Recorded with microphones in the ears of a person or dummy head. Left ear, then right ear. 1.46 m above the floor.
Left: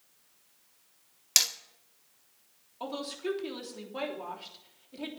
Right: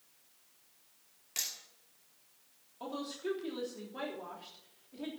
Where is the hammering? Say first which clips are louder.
Left 13 dB; 60° left (ahead or behind), 1.7 m.